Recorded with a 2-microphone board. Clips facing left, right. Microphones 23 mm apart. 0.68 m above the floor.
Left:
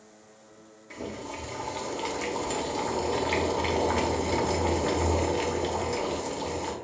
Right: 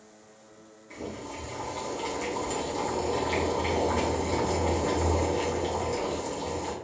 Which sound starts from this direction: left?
Boiling, at 0.9 s.